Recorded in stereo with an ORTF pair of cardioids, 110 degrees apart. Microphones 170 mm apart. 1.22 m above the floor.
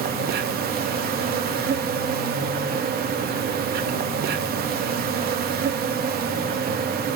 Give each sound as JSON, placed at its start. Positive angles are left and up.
{"t": 0.0, "sound": "an insect", "azimuth_deg": -65, "distance_m": 0.8}